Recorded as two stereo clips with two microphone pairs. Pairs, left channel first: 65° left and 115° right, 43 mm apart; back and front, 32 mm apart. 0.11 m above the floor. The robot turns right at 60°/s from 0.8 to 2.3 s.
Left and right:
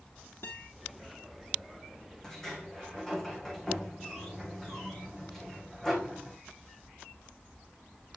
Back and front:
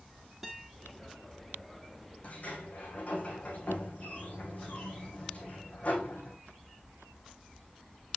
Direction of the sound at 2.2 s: 140° left.